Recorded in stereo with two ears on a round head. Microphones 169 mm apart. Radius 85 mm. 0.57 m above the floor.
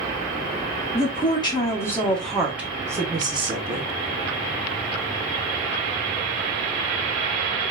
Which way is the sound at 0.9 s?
35° left (ahead or behind).